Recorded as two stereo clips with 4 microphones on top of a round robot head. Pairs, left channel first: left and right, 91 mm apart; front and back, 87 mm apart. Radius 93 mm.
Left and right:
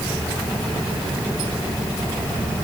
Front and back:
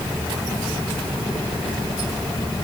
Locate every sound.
Only background noise.